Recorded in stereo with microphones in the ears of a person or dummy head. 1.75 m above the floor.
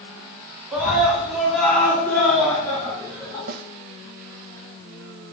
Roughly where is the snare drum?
Right.